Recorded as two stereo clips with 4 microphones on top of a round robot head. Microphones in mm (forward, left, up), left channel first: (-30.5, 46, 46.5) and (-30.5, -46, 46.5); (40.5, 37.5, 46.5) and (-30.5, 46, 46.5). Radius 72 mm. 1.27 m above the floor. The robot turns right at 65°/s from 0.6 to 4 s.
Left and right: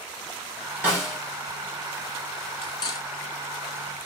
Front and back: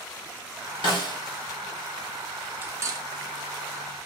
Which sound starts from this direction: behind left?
Cutlery clinking, at 2.6 s.